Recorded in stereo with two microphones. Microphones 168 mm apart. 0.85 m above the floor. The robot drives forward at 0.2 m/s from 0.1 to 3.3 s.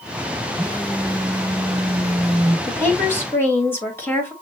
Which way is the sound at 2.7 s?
15° left (ahead or behind).